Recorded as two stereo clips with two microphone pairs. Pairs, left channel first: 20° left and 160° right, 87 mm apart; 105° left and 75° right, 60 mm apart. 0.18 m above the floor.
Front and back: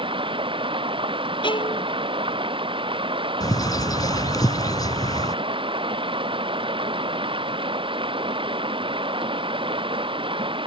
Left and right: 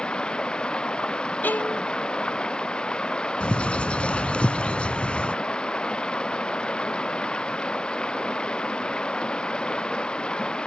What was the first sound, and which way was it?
Running water, straight behind.